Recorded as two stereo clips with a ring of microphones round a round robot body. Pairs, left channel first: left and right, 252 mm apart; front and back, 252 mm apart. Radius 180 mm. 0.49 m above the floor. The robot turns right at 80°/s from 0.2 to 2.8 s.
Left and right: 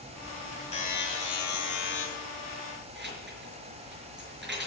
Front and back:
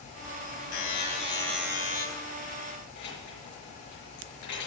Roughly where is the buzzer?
Ahead left.